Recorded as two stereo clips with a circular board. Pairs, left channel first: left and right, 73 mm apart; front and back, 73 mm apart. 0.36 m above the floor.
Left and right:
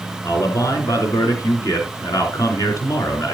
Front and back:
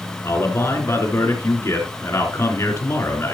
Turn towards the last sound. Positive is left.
turn(degrees=55)